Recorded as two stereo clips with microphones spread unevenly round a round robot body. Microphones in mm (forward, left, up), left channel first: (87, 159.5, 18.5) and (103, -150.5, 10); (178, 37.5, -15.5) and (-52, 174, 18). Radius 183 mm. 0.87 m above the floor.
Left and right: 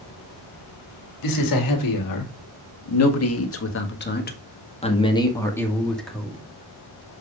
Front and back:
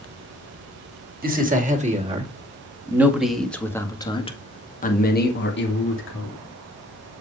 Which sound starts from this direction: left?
A man speaking, at 1.2 s.